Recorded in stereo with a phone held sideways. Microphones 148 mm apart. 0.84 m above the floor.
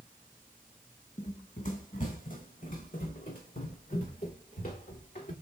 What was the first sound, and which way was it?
Running footsteps, 50° left (ahead or behind).